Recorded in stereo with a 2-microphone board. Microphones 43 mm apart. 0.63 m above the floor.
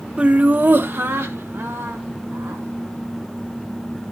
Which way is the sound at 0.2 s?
25° right (ahead or behind).